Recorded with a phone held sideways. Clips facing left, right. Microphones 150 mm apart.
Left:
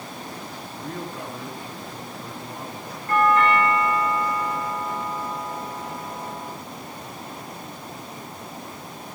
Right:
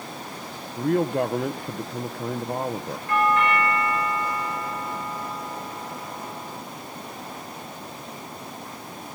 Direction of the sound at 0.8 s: 60° right (ahead or behind).